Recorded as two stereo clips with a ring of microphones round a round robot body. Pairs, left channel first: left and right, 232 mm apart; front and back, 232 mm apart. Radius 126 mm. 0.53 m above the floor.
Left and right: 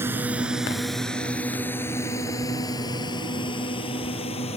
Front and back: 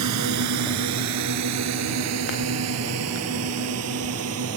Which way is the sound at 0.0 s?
170° right.